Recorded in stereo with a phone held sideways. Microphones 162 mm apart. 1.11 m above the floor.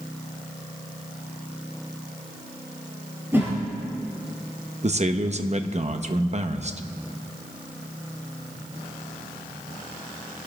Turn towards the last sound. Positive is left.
turn(degrees=-45)  # may be behind; listen again after turning